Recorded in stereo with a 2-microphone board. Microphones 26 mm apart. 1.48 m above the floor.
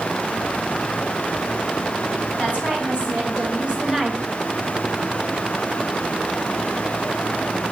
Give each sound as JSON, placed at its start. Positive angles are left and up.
{"t": 2.4, "sound": "a woman speaking", "side_deg": -45, "distance_m": 4.0}